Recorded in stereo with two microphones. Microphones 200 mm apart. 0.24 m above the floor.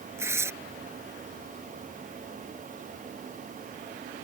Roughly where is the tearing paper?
Centre.